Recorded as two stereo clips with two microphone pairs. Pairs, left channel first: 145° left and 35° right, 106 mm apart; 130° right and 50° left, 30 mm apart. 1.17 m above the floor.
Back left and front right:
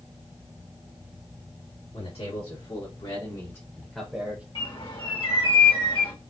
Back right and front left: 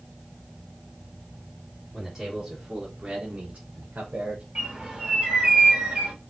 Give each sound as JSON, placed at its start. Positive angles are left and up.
{"t": 1.9, "sound": "a man speaking", "azimuth_deg": 140, "distance_m": 2.0}
{"t": 4.5, "sound": "a bird", "azimuth_deg": 110, "distance_m": 1.6}